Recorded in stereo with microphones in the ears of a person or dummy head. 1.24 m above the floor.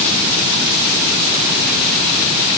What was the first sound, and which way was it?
Only background noise.